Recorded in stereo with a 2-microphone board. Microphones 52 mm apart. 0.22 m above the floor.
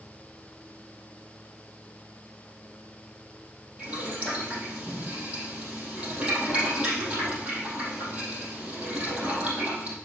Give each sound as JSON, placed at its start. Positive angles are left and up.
{"t": 3.8, "sound": "boiling", "side_deg": -20, "distance_m": 4.0}